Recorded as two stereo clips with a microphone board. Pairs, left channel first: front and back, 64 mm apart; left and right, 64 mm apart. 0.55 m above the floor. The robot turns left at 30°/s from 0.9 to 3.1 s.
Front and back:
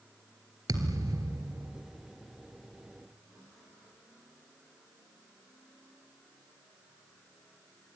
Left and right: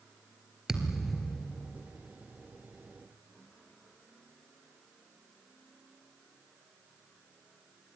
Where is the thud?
175° right, 1.9 m; by 1.8 s 160° left, 1.9 m.